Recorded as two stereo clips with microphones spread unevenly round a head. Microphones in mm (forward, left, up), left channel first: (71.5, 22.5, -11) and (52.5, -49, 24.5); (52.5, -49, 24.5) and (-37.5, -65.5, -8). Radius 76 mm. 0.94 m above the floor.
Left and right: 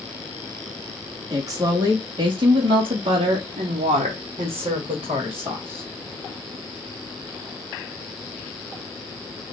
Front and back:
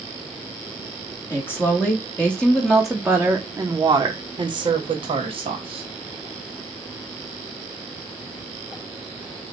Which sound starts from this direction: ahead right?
A woman speaking, at 1.3 s.